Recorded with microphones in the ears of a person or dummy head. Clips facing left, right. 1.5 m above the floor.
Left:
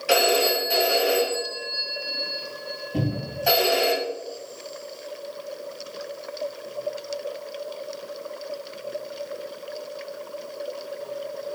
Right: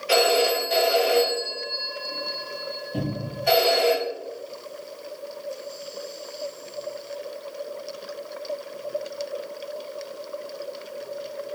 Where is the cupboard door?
Centre (ahead or behind), 1.9 m.